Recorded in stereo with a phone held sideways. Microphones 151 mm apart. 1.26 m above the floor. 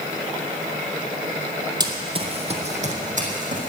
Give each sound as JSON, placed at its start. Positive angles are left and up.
{"t": 1.8, "sound": "running footsteps", "side_deg": -25, "distance_m": 2.0}